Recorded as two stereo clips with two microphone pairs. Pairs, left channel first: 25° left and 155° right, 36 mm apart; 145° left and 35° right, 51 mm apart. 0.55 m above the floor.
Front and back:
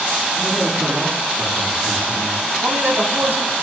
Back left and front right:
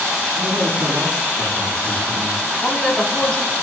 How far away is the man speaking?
About 4 m.